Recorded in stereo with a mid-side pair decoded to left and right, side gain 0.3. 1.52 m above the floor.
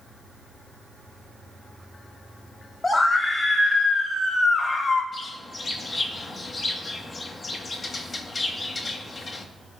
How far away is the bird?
About 2 m.